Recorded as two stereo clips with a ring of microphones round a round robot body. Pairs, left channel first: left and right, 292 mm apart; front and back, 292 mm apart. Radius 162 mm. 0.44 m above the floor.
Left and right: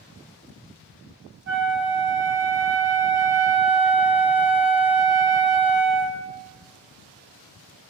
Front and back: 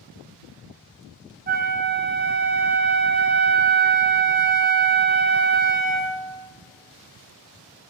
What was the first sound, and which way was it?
A flute, 130° right.